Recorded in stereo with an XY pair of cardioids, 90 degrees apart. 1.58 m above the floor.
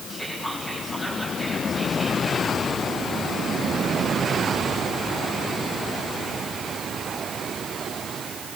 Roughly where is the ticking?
I don't hear ticking.